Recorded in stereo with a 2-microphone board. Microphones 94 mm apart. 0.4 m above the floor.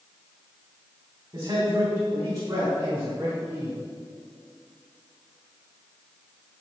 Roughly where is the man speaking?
Right.